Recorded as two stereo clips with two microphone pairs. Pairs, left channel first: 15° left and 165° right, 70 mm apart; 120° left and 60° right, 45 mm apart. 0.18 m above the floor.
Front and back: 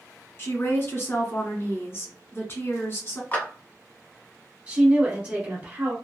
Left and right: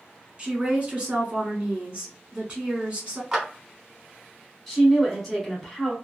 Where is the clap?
20° left, 1.2 m.